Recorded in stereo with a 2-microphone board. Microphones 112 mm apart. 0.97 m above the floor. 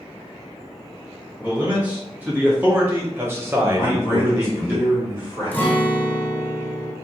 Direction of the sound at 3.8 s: 40° right (ahead or behind).